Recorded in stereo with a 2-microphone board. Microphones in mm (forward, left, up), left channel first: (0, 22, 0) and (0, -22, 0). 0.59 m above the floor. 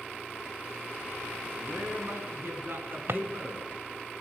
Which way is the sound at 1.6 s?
60° right (ahead or behind).